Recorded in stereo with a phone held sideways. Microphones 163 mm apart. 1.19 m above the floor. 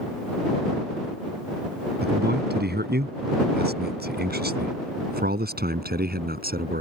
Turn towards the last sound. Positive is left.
turn(degrees=-70)  # may be behind; listen again after turning